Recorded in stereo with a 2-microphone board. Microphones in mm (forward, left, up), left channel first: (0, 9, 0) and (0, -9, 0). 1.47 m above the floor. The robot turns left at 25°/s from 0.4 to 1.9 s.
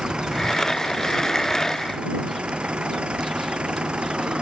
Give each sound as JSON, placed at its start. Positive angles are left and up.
{"t": 0.0, "sound": "an engine running", "azimuth_deg": -55}